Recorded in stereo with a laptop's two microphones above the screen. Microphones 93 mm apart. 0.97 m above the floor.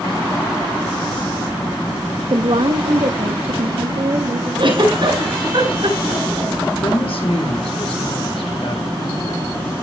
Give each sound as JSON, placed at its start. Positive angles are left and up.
{"t": 2.3, "sound": "a woman speaking", "side_deg": -40, "distance_m": 0.6}
{"t": 4.6, "sound": "a giggle", "side_deg": -60, "distance_m": 7.5}
{"t": 6.8, "sound": "a woman speaking", "side_deg": 70, "distance_m": 4.0}